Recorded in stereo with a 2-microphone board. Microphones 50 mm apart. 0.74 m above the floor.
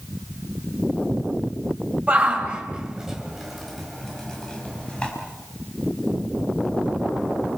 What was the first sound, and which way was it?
A shout, 30° right (ahead or behind).